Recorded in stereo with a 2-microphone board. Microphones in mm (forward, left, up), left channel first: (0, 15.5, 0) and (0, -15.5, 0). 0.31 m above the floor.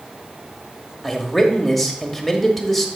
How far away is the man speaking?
About 1.1 m.